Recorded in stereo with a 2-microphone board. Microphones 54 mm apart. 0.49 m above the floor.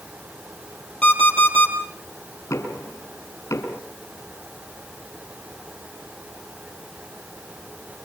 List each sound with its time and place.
1.0 s an alarm clock: 20° left (ahead or behind), 6 m
2.5 s knocking: 70° left (ahead or behind), 5 m